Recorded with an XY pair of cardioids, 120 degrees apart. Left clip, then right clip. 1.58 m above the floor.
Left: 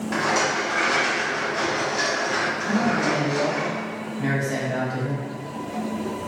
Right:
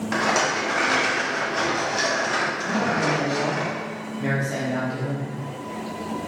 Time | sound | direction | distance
0.1 | a rattle | 35° right | 1.0 m
2.7 | a man speaking | 5° left | 0.7 m